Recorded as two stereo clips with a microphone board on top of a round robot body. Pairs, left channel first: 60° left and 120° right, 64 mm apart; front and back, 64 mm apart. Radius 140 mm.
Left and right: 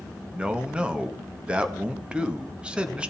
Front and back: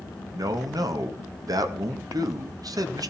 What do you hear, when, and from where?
0.3 s a man speaking: 165° left, 2 m